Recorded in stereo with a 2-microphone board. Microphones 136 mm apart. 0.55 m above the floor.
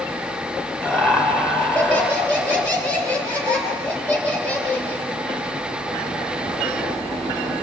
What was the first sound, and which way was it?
Laughter, 10° left (ahead or behind).